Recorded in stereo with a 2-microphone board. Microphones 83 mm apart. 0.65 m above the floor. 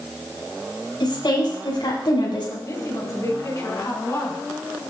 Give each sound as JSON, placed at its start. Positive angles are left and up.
{"t": 1.0, "sound": "a woman speaking", "side_deg": 65, "distance_m": 7.0}
{"t": 2.6, "sound": "a woman speaking", "side_deg": 40, "distance_m": 7.5}